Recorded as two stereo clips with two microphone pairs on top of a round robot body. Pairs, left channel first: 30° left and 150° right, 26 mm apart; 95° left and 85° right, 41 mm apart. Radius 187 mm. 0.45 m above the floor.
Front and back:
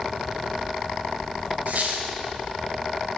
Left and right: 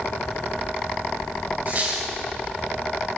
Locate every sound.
1.7 s a squeak: 130° right, 2 m